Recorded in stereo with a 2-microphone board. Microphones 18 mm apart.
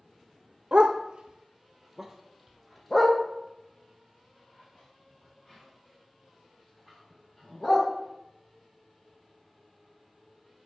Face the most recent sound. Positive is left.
turn(degrees=20)  # may be behind; listen again after turning